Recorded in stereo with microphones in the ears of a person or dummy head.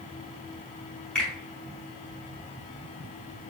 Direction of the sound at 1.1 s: 5° left (ahead or behind).